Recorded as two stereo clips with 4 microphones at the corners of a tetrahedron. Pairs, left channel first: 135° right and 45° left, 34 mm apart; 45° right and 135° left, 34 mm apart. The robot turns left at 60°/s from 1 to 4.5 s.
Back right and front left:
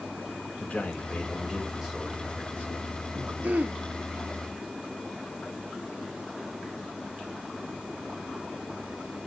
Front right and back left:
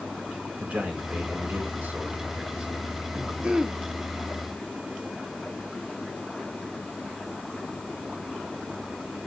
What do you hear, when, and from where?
0.6 s a man speaking: 170° left, 3 m; by 3.3 s 30° left, 3 m
3.4 s throat clearing: 75° left, 0.7 m; by 3.8 s 55° left, 0.7 m